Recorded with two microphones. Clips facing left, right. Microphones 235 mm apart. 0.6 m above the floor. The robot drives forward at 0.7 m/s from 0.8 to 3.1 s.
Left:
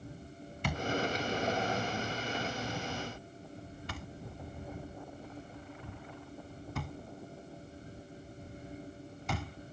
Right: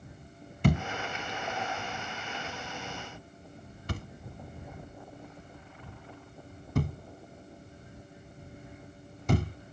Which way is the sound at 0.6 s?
50° right (ahead or behind).